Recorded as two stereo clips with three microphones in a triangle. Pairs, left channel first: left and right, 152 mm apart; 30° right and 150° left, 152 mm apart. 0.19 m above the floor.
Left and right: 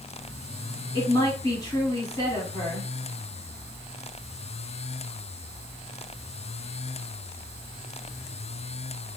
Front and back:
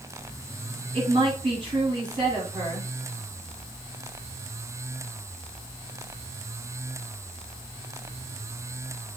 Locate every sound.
0.9 s a woman speaking: 135° left, 1.8 m